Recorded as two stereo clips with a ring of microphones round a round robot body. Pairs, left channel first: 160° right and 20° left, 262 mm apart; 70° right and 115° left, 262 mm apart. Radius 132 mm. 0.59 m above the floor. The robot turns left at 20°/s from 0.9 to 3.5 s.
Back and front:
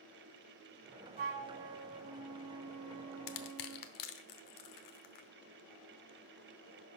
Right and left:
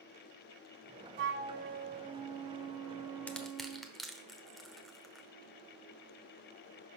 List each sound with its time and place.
1.2 s a flute: 70° left, 0.7 m; by 3.9 s 25° left, 0.7 m
3.3 s crushing: 150° right, 0.9 m; by 5.3 s 155° right, 0.9 m